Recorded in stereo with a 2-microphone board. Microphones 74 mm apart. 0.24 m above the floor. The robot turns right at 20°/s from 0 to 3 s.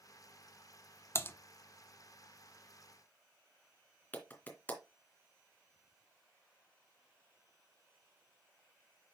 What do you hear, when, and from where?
1.1 s typing on a keyboard: 35° left (ahead or behind), 0.6 m; by 1.3 s 30° left (ahead or behind), 0.6 m
4.1 s a clap: 20° left (ahead or behind), 2 m